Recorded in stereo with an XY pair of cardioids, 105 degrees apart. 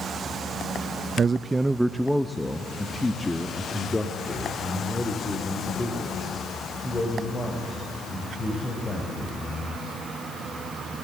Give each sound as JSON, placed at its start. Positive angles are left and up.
{"t": 1.2, "sound": "a man speaking", "azimuth_deg": -45, "distance_m": 0.5}